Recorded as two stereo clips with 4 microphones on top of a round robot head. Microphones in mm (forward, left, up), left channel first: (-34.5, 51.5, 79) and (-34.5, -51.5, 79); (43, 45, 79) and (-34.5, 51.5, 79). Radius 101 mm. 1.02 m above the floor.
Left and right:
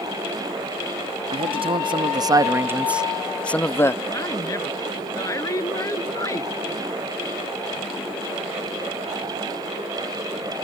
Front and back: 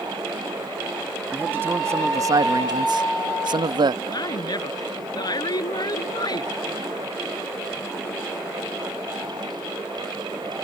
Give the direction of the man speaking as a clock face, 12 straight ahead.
4 o'clock.